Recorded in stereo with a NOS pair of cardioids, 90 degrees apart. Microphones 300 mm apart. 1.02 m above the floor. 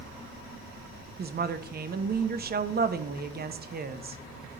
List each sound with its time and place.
1.2 s a woman speaking: 35° right, 0.8 m